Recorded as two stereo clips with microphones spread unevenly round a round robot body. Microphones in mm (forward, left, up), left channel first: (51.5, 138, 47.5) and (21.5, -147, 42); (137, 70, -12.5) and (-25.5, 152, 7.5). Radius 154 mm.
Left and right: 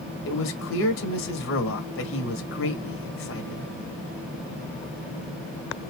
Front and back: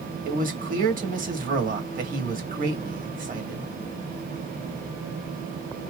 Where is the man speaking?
115° left, 1.6 m.